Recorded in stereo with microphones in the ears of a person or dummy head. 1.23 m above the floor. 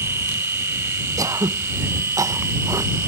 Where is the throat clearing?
15° right (ahead or behind).